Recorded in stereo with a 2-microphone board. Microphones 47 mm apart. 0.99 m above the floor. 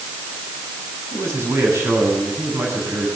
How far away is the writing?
No writing in this recording.